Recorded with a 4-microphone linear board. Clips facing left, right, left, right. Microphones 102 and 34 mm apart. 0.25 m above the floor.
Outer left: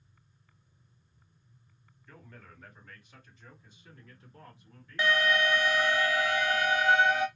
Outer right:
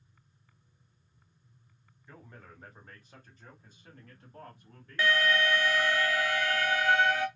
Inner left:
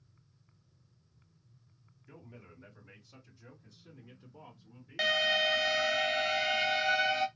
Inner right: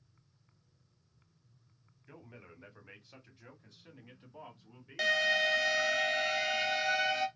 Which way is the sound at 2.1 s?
20° right (ahead or behind).